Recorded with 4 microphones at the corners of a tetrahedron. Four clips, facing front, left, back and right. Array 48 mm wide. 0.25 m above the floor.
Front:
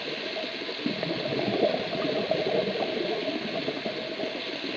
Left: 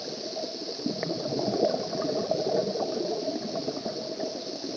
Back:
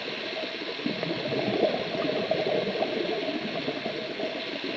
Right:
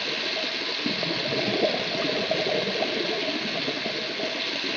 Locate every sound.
0.0 s running water: 95° right